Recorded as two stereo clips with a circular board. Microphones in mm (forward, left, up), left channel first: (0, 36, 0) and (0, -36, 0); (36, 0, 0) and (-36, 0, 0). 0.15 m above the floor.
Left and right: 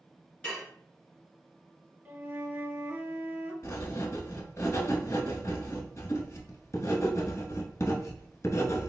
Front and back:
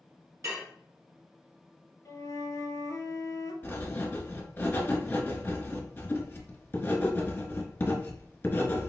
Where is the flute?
35° right, 0.9 m.